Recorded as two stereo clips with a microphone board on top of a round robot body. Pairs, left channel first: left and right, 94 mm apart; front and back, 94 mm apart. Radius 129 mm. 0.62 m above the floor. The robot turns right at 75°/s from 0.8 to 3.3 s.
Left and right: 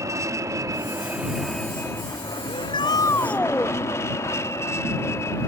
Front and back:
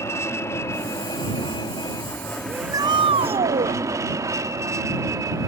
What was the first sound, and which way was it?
An aircraft, 50° right.